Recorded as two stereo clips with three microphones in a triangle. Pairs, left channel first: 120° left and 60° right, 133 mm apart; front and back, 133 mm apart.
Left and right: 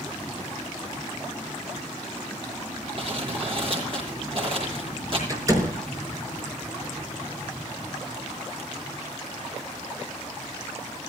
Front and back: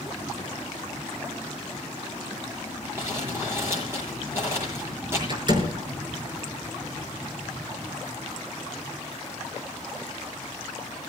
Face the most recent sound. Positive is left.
turn(degrees=-125)